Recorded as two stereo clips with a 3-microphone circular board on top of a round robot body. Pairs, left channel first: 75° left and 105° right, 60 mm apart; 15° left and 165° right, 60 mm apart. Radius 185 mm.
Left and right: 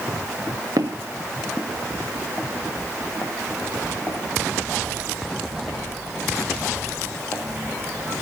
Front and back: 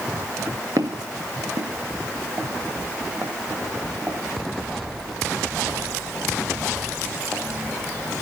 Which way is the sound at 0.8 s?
125° right.